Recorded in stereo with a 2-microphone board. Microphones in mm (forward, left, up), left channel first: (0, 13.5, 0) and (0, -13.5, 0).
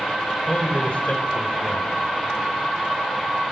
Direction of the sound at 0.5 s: 50° left (ahead or behind).